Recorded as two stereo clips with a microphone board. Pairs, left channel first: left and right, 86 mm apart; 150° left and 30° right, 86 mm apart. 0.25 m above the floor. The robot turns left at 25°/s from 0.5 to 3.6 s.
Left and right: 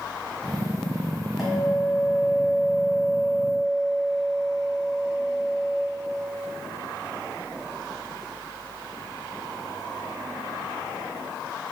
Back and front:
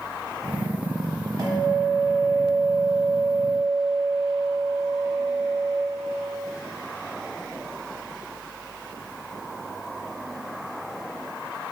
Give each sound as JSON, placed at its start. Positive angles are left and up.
{"t": 1.4, "sound": "a guitar", "azimuth_deg": -5, "distance_m": 1.1}